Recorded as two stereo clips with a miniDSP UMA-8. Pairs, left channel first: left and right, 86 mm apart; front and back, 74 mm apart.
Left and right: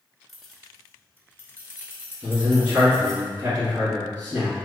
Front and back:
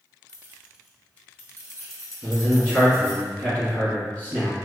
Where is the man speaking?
45° right, 1.7 m.